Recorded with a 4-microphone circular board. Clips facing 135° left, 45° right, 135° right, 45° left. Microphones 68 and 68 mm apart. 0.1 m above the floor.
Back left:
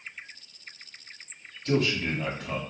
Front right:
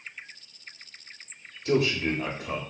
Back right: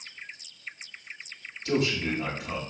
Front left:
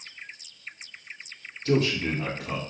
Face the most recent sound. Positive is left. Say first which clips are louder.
# front right 2 dB, front left 2 dB
turn(degrees=25)